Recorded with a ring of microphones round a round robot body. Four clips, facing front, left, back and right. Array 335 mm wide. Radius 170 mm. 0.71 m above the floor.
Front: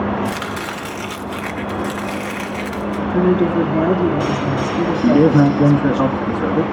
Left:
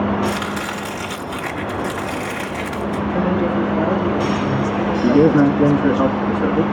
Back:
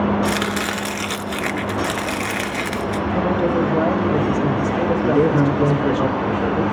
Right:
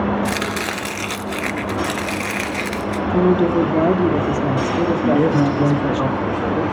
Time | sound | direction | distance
0.2 | chopping | 130° right | 1.0 m
3.1 | a woman speaking | 65° right | 1.7 m
5.0 | a man speaking | 10° left | 1.0 m